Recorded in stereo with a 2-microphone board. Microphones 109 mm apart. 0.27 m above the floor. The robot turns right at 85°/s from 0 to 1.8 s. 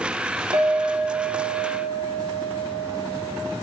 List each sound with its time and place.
0.5 s a clink: 60° right, 1.0 m; by 3.3 s 45° left, 1.0 m